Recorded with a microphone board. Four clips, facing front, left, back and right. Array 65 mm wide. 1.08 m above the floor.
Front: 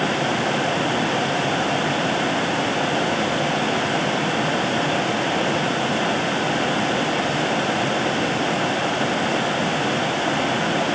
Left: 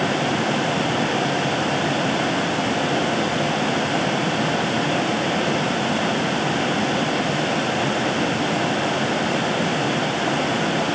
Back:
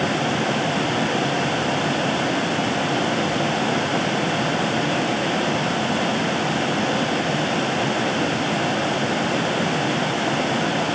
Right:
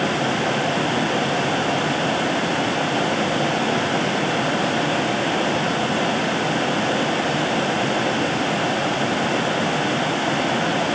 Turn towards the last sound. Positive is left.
No sound to turn to.